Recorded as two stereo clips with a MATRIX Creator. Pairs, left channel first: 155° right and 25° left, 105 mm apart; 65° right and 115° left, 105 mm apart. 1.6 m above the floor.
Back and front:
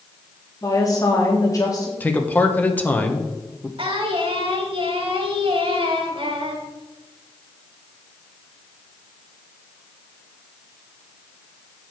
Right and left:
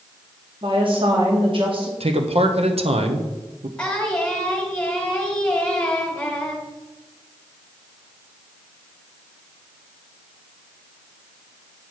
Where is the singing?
10° left, 2 m.